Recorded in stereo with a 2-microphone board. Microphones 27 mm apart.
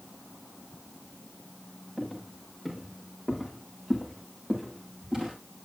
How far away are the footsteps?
About 6.5 m.